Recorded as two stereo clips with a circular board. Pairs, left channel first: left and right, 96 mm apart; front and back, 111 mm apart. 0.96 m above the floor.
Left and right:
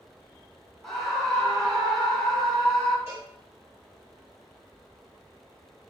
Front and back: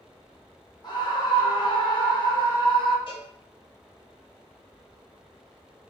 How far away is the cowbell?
About 1.3 m.